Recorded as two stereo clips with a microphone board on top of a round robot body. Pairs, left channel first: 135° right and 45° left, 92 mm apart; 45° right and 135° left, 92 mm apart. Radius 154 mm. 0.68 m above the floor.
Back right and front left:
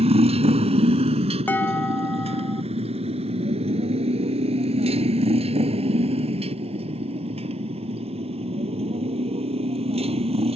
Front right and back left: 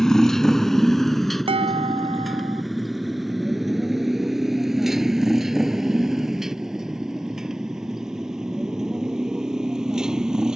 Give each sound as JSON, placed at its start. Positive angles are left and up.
{"t": 0.0, "sound": "a motorcycle", "azimuth_deg": 40}
{"t": 1.5, "sound": "dishes clattering", "azimuth_deg": 155}